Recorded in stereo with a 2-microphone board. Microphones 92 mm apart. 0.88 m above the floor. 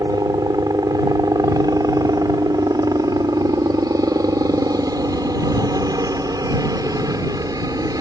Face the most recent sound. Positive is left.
turn(degrees=-40)  # may be behind; listen again after turning